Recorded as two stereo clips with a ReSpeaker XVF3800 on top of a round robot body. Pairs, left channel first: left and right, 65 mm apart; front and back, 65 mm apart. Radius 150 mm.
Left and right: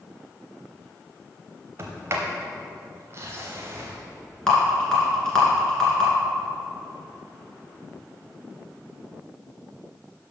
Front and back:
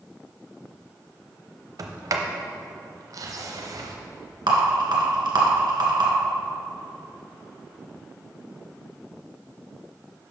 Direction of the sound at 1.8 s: 145° right.